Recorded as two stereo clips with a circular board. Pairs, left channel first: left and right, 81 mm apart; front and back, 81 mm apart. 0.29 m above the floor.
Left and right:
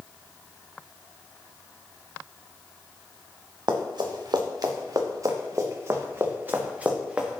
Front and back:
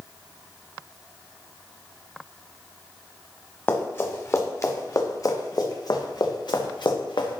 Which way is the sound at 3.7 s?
60° right.